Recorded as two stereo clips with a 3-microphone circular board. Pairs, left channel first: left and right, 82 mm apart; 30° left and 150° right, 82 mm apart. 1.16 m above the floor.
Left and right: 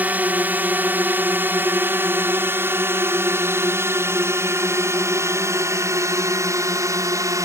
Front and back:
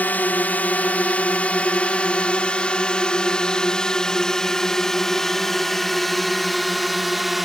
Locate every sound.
0.0 s a drone: 30° right; by 7.5 s 65° right